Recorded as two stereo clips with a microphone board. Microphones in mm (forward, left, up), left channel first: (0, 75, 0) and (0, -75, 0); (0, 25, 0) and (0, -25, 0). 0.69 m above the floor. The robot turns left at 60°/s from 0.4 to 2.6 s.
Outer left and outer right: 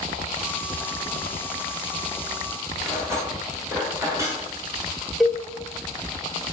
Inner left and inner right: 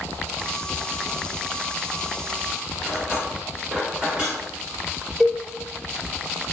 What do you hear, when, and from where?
2.8 s cutlery clinking: 20° right (ahead or behind), 1.5 m
5.2 s a cowbell: centre (ahead or behind), 0.5 m